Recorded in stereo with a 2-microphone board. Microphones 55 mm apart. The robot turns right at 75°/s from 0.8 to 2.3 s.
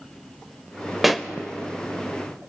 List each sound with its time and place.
1.0 s a pop: 5° right (ahead or behind), 0.5 m; by 1.3 s 5° left (ahead or behind), 0.5 m